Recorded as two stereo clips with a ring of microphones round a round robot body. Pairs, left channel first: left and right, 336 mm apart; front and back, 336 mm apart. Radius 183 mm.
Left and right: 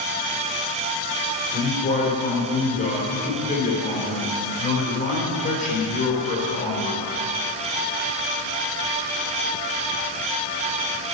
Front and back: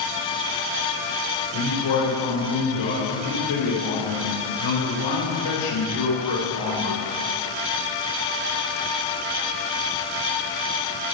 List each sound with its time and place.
1.5 s a man speaking: 20° left, 3.5 m